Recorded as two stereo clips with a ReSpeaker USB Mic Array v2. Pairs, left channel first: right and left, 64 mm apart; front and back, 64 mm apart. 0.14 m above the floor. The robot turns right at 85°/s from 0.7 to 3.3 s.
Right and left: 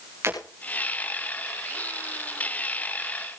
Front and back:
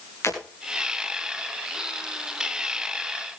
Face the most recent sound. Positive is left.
turn(degrees=-100)